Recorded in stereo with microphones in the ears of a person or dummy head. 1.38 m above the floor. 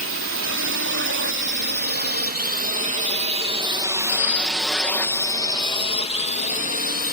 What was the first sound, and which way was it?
A drone, 65° right (ahead or behind).